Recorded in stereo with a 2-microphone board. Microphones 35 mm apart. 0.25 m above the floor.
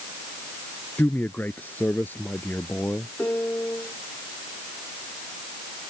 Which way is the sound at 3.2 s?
75° left (ahead or behind).